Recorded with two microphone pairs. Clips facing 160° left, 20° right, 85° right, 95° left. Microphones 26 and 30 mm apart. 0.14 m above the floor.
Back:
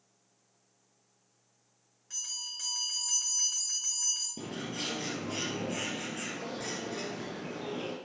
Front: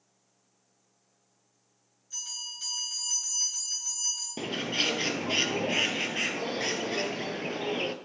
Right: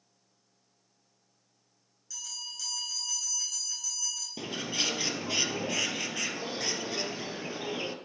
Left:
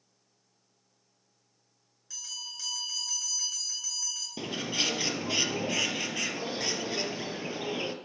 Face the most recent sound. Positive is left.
turn(degrees=15)